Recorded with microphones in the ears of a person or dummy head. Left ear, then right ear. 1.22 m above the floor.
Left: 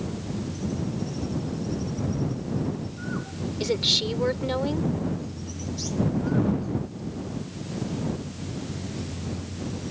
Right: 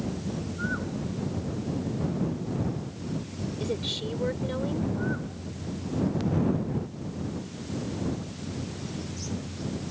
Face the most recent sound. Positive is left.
turn(degrees=35)  # may be behind; listen again after turning